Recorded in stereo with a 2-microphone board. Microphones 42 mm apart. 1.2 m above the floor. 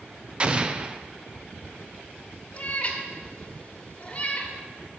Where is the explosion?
25° right (ahead or behind), 0.5 m.